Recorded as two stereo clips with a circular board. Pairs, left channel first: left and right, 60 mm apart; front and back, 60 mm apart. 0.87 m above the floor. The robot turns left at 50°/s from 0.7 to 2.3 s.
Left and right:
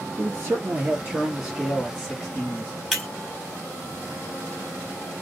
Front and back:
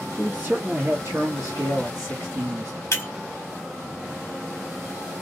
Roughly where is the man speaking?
Behind right.